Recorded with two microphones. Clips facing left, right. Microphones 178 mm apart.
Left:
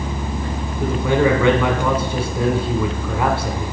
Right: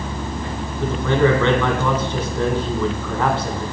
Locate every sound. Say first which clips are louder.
0.8 s a man speaking: even; 10° left (ahead or behind), 1.4 m